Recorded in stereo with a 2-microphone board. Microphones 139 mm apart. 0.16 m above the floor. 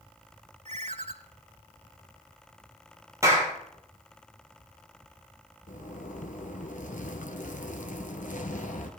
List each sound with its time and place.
0.7 s a ringtone: 60° right (ahead or behind), 0.9 m
3.2 s a clap: 20° right (ahead or behind), 3 m
5.7 s a zipper: 70° left (ahead or behind), 1.1 m